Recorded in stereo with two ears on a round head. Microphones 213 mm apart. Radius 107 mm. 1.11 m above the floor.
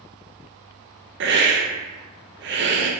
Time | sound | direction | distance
1.2 | a hiss | 50° right (ahead or behind) | 0.5 m